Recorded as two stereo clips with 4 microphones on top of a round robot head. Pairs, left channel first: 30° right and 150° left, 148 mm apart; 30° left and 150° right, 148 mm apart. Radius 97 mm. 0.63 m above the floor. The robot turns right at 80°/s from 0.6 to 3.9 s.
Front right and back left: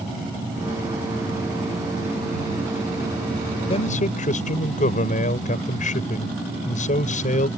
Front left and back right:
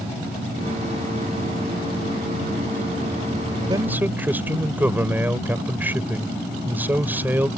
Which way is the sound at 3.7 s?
85° right.